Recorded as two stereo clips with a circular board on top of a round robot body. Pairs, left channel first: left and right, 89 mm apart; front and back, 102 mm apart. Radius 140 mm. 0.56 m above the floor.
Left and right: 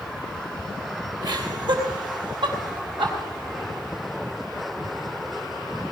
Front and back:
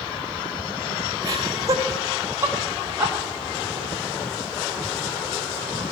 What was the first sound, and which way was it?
Laughter, 130° right.